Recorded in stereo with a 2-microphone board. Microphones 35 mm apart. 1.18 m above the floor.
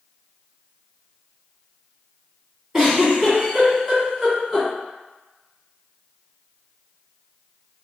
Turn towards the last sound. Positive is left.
turn(degrees=-10)  # may be behind; listen again after turning